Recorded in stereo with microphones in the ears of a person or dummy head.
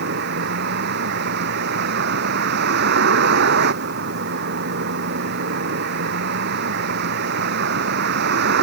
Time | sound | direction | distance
0.0 | a vehicle | 65° right (ahead or behind) | ?